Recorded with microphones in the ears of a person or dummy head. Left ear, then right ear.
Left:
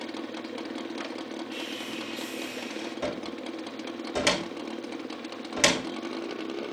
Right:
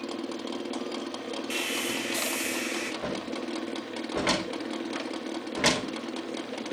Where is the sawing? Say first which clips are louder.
Right 8 dB; 60° right (ahead or behind), 2.0 m.